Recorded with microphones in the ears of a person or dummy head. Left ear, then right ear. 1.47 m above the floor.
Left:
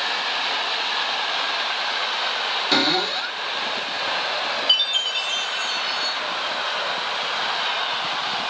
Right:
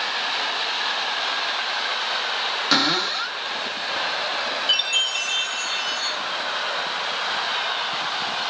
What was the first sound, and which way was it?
A cupboard door, 50° right (ahead or behind).